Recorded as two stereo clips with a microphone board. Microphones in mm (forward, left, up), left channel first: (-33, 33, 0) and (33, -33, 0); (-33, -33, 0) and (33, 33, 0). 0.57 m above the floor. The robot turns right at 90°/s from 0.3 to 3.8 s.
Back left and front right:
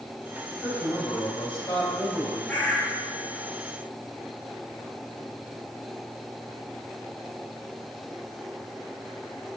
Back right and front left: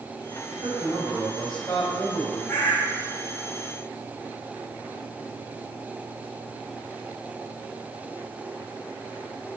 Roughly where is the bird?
Behind.